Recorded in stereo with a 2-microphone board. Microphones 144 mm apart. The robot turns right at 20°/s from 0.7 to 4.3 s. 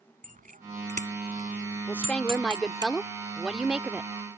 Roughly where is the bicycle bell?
Right.